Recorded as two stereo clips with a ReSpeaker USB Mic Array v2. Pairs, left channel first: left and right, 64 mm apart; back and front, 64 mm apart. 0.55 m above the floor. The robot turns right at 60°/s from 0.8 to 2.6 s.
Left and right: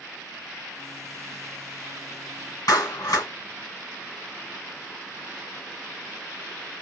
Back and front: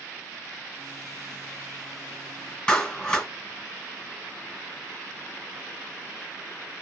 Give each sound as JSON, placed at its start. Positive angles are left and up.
{"t": 2.7, "sound": "a clap", "azimuth_deg": 105, "distance_m": 1.8}